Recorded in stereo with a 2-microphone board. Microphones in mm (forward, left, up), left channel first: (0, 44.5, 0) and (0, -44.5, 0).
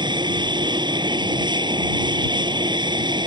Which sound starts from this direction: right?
An aircraft, at 0.0 s.